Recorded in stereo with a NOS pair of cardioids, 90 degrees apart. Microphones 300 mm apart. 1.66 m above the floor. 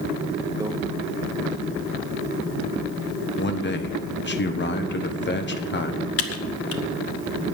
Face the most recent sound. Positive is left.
turn(degrees=45)